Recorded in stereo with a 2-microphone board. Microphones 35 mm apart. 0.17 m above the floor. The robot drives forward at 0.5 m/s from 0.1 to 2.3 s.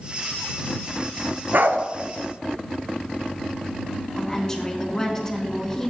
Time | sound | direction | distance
1.5 | a dog barking | 70° right (ahead or behind) | 0.9 m
4.2 | a woman speaking | 20° left (ahead or behind) | 2.0 m